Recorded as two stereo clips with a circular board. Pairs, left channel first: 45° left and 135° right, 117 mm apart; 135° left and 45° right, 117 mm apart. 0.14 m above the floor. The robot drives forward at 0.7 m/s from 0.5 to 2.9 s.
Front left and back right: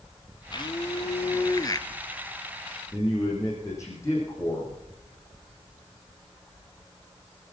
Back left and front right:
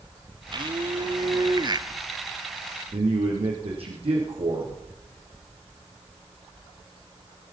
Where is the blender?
Straight ahead, 1.7 m; by 1.9 s 5° right, 0.8 m.